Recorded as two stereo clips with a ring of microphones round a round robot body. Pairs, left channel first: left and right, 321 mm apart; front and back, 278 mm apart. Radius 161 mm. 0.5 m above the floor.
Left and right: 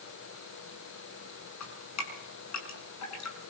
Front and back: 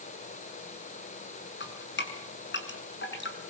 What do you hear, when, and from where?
1.6 s dripping: 50° left, 7 m